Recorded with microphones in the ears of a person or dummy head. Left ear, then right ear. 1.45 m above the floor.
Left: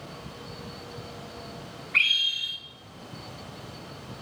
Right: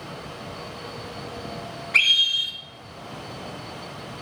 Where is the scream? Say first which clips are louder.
Right 5 dB; 75° right (ahead or behind), 3 m.